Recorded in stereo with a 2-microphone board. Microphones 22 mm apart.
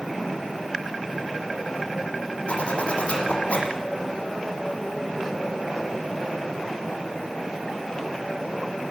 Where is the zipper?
65° left (ahead or behind), 6 m.